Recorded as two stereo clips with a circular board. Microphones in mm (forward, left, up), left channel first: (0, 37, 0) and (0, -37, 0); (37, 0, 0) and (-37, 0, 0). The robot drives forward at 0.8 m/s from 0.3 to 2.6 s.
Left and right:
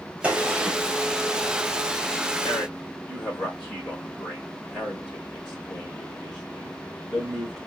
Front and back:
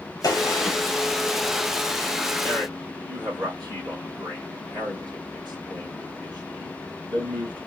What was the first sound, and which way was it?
A gunshot, 20° right.